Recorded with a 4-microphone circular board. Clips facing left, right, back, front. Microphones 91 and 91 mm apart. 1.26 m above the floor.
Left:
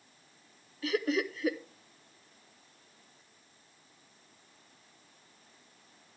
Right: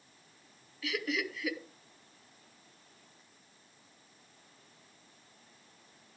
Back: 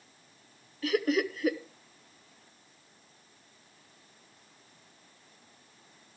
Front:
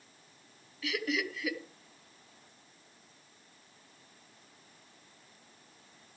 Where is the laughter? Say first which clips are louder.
Left 5 dB, back 7 dB; 140° left, 0.9 m.